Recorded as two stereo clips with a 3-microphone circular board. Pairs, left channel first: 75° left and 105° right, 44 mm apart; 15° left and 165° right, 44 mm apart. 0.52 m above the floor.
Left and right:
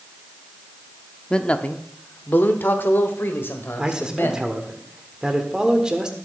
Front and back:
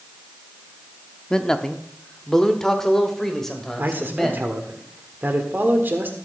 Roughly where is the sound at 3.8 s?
Behind.